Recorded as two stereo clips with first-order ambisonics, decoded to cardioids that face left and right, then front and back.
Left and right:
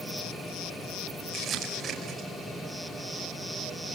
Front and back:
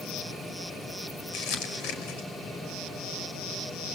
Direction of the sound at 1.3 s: 20° right.